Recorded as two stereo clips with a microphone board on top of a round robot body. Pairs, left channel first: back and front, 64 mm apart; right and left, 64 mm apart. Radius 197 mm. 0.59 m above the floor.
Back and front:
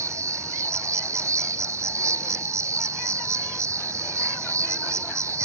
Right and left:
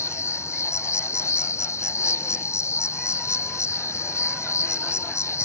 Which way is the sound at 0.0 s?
45° right.